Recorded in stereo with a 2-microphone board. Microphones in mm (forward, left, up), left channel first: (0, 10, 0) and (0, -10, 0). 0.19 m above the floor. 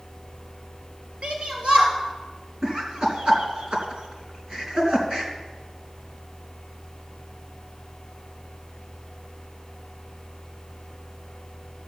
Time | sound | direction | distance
1.2 | a shout | 75° right (ahead or behind) | 3.5 m
2.6 | laughter | 55° right (ahead or behind) | 3 m